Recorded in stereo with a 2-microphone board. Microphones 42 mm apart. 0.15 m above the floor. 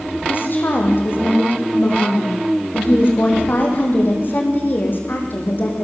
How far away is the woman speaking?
About 6 m.